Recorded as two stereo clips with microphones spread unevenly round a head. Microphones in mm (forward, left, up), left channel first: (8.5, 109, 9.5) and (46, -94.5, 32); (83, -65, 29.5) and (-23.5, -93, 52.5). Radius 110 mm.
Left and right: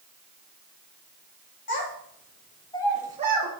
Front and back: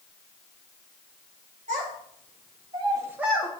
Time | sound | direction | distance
1.7 | a child speaking | 140° left | 1.7 m